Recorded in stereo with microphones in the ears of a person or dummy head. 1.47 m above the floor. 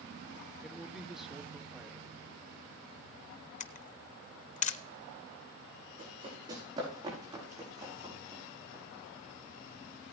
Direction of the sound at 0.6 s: Centre (ahead or behind).